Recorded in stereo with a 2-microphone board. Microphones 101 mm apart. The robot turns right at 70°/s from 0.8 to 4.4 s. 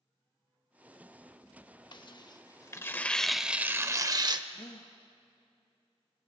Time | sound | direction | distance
1.9 | tearing paper | 80° left | 0.6 m
4.5 | a gasp | 40° left (ahead or behind) | 1.2 m